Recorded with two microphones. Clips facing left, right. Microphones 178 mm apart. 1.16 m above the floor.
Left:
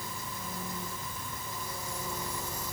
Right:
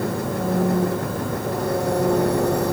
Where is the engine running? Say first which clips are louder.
Right 19 dB; 70° right (ahead or behind).